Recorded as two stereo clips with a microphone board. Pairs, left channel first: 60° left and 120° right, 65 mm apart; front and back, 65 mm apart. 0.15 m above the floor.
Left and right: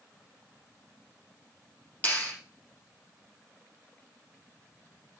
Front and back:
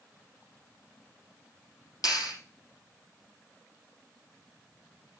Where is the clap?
5° right, 5.5 m.